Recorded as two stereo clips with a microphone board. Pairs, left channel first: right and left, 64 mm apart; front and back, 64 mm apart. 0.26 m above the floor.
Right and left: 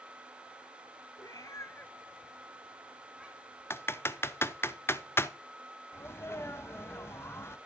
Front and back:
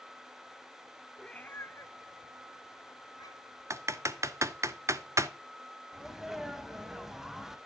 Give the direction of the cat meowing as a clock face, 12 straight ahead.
3 o'clock.